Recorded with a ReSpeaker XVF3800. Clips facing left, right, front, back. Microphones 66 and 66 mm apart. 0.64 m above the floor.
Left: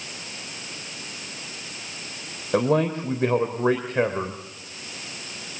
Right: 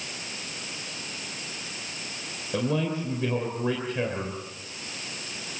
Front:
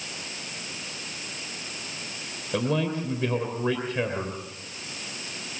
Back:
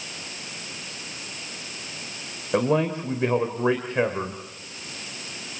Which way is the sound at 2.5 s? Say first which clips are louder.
Left 6 dB, back 4 dB; 125° left.